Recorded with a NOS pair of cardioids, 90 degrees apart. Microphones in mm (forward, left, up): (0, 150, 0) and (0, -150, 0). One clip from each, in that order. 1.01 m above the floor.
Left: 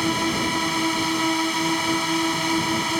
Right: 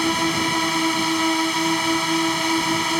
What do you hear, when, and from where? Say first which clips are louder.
0.0 s a drone: right 2 dB; 45° right